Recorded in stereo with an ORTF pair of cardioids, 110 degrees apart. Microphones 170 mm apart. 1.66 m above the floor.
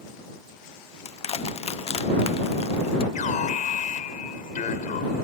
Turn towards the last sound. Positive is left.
turn(degrees=50)